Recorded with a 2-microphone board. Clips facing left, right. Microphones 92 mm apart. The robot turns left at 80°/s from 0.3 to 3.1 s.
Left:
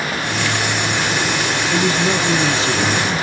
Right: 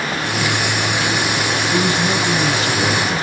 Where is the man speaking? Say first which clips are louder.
Left 1 dB; 130° left, 1.2 m; by 3.2 s 15° left, 1.2 m.